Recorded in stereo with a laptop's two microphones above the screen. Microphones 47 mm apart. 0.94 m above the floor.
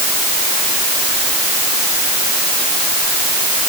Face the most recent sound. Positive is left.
No sound to turn to.